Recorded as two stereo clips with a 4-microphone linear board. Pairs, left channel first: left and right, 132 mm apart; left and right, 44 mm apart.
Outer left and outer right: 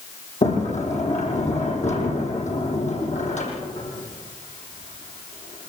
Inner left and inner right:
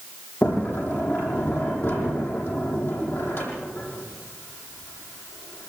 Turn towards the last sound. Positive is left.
turn(degrees=75)  # may be behind; listen again after turning